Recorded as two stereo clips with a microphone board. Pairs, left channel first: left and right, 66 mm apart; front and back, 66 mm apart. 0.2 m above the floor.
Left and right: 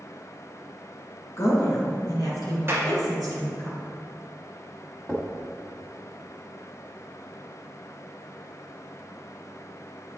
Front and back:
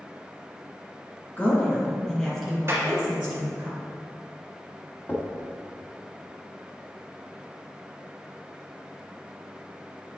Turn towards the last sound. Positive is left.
turn(degrees=20)